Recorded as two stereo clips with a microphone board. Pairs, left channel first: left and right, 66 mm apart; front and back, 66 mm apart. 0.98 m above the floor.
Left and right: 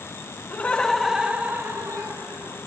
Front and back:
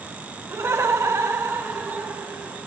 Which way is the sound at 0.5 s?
140° left.